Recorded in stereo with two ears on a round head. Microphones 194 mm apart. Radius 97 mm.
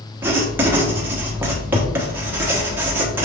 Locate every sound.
0.2 s writing: 10° right (ahead or behind), 0.9 m